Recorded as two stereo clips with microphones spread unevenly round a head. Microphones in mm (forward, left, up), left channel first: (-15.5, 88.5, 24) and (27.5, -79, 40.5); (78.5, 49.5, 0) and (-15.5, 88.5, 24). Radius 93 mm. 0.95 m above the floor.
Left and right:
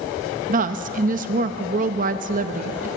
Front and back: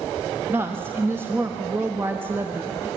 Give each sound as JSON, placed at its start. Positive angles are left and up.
{"t": 0.5, "sound": "a woman speaking", "azimuth_deg": -120, "distance_m": 0.9}